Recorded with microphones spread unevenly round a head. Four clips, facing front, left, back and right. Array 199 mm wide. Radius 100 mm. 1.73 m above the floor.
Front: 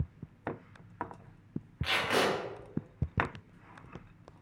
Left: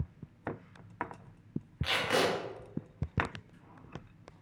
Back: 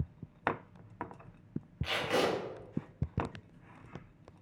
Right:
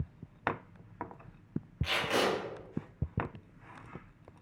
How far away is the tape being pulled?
About 1.1 m.